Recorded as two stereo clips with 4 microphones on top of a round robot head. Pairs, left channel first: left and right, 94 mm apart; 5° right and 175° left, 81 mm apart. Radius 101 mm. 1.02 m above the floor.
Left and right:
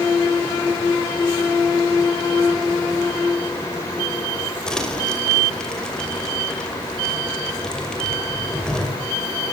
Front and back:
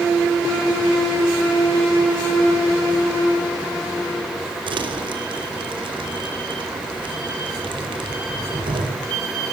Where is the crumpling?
170° left, 5.5 m.